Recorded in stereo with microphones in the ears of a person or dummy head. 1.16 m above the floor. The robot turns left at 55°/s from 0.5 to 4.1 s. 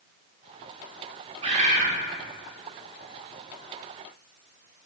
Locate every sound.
1.4 s a bird: 25° right (ahead or behind), 0.9 m; by 1.9 s 50° right (ahead or behind), 0.9 m